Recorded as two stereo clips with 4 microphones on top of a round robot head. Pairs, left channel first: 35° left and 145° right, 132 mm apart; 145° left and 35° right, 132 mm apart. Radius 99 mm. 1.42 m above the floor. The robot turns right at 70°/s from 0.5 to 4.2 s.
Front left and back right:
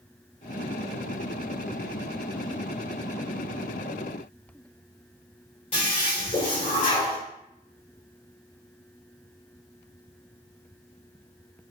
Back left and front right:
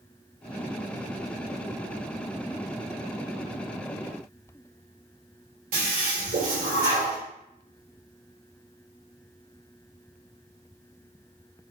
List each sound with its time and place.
5.7 s a toilet flushing: 10° right, 2 m